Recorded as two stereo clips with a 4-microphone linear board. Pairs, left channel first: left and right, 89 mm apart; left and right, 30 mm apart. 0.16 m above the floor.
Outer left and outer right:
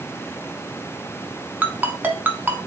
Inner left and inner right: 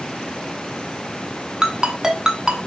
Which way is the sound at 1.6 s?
20° right (ahead or behind).